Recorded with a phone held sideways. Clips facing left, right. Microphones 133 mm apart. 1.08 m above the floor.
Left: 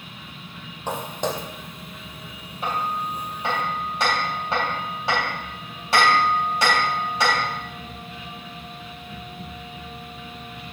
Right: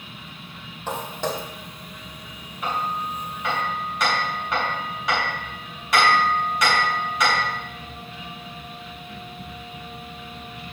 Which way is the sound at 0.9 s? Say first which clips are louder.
Left 1 dB; 15° left (ahead or behind).